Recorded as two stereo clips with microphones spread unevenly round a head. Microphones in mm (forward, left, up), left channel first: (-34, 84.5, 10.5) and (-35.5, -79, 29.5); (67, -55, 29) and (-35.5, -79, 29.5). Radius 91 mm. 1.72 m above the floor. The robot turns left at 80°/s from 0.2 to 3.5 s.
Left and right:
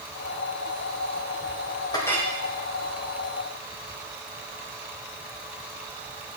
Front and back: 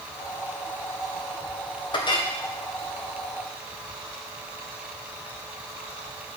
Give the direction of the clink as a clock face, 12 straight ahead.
11 o'clock.